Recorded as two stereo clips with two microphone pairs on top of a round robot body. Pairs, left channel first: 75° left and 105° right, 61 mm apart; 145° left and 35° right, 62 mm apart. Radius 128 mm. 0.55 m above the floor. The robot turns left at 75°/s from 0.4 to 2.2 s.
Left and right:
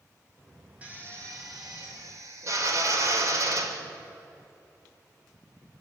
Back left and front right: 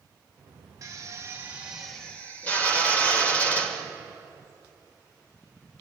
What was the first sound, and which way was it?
A drill, 40° right.